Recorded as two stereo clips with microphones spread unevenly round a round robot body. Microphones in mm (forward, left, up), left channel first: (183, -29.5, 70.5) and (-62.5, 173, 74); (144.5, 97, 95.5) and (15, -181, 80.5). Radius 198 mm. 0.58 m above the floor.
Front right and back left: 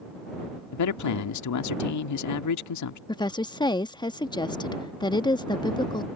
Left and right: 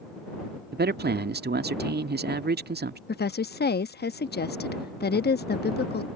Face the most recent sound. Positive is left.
turn(degrees=30)